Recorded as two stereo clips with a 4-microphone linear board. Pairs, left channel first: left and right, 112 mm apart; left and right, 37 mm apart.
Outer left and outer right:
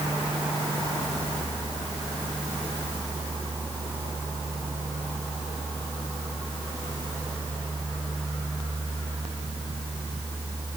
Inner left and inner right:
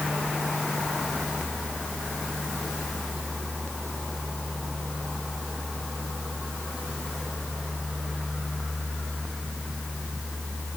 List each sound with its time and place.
Only background noise.